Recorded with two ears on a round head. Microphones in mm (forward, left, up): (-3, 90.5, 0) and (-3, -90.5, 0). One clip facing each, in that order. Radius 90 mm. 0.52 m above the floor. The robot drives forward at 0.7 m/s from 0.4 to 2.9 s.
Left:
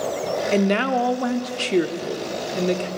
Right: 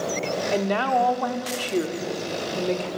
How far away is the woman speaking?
About 1.2 m.